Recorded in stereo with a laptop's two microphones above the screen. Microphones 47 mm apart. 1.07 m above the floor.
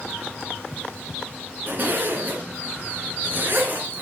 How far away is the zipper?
About 2 m.